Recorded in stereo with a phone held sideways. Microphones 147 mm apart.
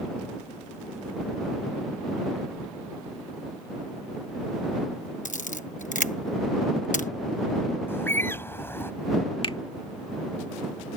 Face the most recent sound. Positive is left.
turn(degrees=40)  # may be behind; listen again after turning